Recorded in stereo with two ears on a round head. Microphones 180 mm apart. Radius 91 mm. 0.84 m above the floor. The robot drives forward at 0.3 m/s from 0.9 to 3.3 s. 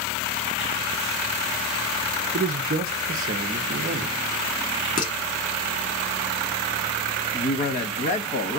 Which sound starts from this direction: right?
A man speaking, at 2.3 s.